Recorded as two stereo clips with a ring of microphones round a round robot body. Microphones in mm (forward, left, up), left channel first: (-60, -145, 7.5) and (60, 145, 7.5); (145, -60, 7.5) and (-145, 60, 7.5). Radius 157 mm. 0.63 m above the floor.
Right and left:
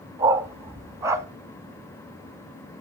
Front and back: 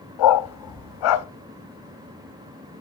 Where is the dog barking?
15° right, 1.0 m.